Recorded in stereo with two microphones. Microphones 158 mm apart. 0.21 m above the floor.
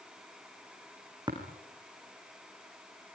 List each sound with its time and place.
1.3 s tapping: 25° right (ahead or behind), 5.5 m